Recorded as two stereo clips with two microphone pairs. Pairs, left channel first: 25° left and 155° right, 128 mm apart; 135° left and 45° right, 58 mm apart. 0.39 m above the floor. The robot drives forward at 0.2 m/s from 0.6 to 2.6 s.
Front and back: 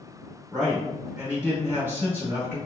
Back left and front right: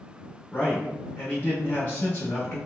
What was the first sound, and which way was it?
A man speaking, 125° left.